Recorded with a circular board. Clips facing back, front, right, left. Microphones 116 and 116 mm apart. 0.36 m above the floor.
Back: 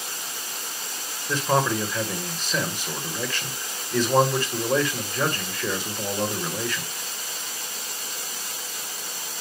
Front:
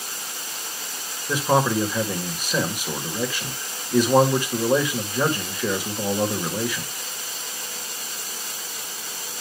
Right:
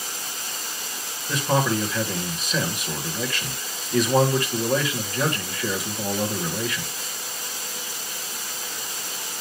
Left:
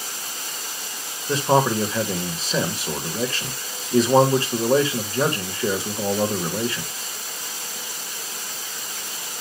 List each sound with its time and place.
1.3 s a man speaking: 70° left, 1.6 m